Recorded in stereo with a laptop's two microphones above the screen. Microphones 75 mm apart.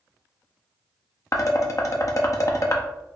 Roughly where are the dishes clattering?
Left.